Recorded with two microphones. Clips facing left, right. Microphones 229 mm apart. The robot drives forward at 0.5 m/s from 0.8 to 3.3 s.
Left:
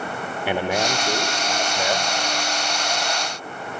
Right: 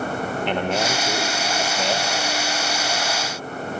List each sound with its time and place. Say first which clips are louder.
0.5 s a man speaking: left 2 dB; 10° left (ahead or behind), 0.7 m; by 2.1 s 5° left (ahead or behind), 1.1 m